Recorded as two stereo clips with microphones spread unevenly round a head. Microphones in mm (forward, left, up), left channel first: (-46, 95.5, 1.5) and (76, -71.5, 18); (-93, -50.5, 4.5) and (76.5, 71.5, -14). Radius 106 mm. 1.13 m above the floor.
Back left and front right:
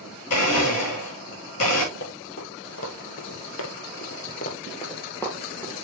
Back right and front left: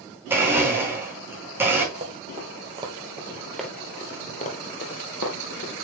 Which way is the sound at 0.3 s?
115° left.